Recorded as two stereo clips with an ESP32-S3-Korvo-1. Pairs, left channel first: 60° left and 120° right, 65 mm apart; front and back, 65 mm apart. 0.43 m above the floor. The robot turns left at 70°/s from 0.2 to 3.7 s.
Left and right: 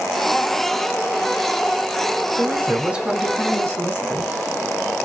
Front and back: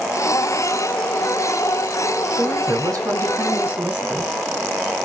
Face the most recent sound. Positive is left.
turn(degrees=115)